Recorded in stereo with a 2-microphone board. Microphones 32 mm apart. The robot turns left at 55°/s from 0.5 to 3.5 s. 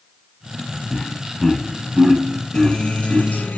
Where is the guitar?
160° left, 3.5 m; by 3.6 s 105° left, 3.5 m.